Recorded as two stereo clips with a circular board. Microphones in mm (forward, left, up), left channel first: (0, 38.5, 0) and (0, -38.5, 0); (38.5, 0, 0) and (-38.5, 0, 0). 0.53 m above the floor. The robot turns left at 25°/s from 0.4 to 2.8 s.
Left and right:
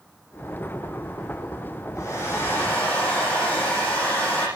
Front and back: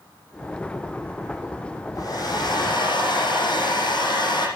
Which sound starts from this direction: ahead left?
A hair dryer, at 1.9 s.